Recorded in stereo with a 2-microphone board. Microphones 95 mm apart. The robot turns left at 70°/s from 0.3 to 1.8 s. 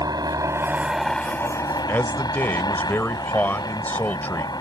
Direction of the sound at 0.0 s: 130° right.